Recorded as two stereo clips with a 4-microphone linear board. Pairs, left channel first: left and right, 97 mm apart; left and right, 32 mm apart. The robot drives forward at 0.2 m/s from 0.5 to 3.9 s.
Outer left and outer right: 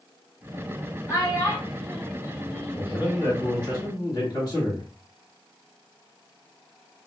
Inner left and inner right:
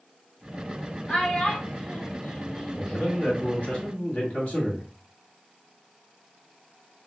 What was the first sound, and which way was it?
A child speaking, 35° left (ahead or behind).